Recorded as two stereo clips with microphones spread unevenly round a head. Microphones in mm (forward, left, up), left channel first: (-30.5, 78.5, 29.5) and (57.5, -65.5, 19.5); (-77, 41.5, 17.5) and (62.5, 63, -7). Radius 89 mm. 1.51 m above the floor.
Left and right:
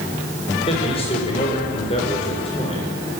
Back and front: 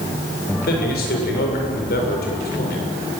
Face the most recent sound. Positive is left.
turn(degrees=180)